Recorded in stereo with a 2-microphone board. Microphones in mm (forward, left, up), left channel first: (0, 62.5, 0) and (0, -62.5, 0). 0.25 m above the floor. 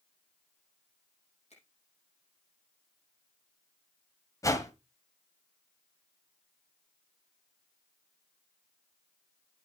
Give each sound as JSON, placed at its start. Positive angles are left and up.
{"t": 1.5, "sound": "a finger snap", "side_deg": 55, "distance_m": 7.0}
{"t": 4.4, "sound": "a whoosh", "side_deg": 25, "distance_m": 1.6}